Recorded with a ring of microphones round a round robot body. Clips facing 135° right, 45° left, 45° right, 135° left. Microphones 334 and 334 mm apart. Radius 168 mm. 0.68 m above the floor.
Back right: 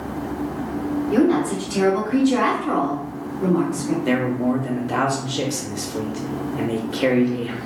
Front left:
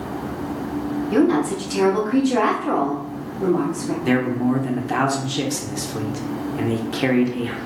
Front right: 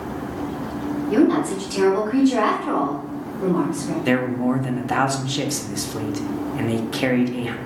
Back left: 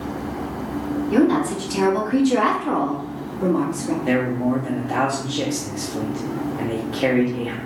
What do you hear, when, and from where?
1.1 s a woman speaking: 60° left, 1.3 m; by 4.0 s 165° left, 1.5 m
4.0 s a man speaking: 30° right, 0.6 m